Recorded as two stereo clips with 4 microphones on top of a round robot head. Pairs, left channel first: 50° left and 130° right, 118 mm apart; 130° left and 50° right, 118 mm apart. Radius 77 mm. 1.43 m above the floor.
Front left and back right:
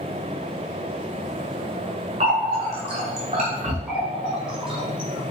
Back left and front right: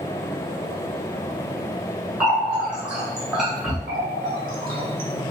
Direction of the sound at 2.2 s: 130° right.